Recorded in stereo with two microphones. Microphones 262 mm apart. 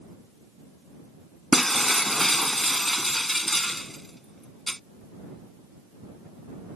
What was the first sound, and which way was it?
Breaking glass, centre (ahead or behind).